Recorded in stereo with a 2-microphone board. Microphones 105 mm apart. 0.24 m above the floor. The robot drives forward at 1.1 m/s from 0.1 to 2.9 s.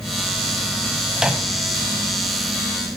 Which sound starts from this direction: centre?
A microwave, at 1.2 s.